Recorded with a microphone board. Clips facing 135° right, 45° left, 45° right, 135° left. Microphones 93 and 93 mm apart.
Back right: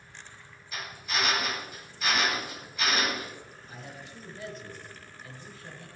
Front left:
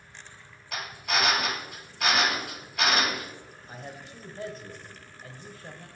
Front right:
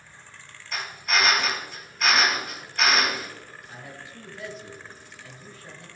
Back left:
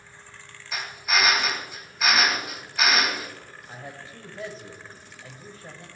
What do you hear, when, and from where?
0.7 s a drill: 50° left, 2.5 m
3.7 s a man speaking: 85° left, 2.5 m